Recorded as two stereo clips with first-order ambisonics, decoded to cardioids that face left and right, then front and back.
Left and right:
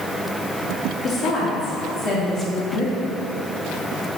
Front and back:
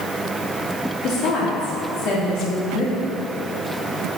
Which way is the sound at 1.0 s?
35° left.